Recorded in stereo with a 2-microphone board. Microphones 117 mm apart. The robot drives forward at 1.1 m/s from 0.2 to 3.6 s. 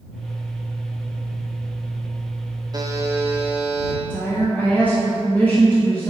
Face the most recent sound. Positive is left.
turn(degrees=15)  # may be behind; listen again after turning